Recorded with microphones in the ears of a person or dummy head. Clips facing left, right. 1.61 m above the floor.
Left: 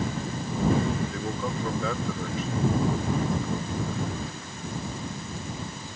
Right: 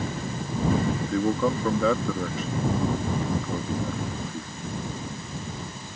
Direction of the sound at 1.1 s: 55° right (ahead or behind).